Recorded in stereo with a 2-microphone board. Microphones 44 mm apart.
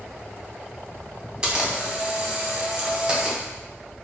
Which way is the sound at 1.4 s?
20° right (ahead or behind).